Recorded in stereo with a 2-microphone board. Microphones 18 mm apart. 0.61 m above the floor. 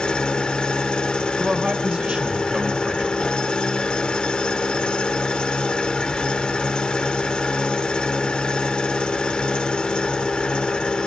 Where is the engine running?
50° left (ahead or behind), 1.2 m.